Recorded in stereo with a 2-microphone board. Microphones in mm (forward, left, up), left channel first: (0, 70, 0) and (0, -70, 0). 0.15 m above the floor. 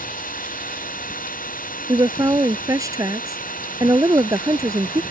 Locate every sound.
0.0 s an engine running: 85° left
1.9 s a woman speaking: 25° right (ahead or behind)